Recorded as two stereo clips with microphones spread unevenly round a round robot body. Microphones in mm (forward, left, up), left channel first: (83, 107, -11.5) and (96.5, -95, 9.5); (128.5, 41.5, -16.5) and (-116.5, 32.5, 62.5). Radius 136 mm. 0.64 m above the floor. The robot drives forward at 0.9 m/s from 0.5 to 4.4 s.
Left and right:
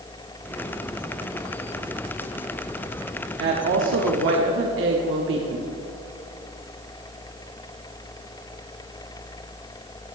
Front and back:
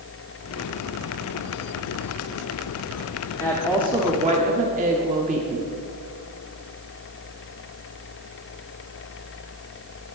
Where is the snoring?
No snoring in this recording.